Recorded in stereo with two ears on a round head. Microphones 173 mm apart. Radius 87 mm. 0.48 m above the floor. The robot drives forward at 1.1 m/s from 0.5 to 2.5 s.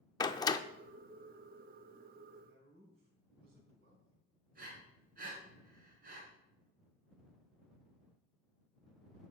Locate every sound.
0.2 s a door slam: 20° left (ahead or behind), 0.5 m
2.4 s a man speaking: 60° right (ahead or behind), 4 m
4.5 s breathing: 50° right (ahead or behind), 4.5 m